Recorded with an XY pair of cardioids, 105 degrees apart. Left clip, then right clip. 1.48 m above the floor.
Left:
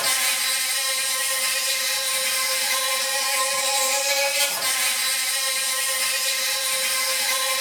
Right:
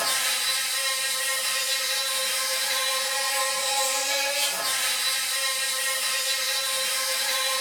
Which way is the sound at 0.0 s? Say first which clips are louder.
Left 2 dB; 65° left.